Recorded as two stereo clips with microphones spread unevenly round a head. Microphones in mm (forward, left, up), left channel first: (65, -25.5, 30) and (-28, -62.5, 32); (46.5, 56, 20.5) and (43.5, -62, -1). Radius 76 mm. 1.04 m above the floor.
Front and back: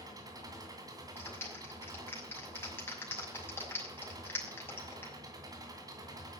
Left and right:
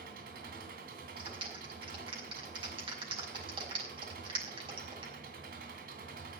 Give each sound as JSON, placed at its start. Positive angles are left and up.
{"t": 0.0, "sound": "an engine running", "azimuth_deg": -110, "distance_m": 3.0}
{"t": 1.2, "sound": "a clap", "azimuth_deg": -45, "distance_m": 6.0}